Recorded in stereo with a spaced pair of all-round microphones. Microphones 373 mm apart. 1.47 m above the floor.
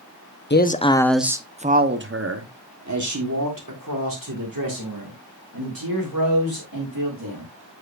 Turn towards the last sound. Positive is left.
turn(degrees=-70)  # may be behind; listen again after turning